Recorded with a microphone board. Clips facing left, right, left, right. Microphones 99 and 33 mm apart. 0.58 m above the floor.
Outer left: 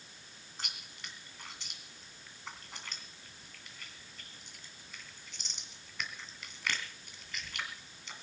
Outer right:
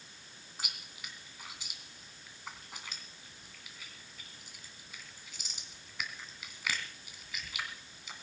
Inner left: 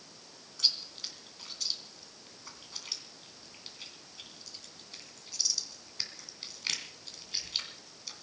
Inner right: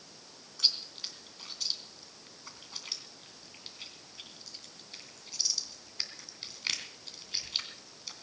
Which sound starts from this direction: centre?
Chewing, at 0.6 s.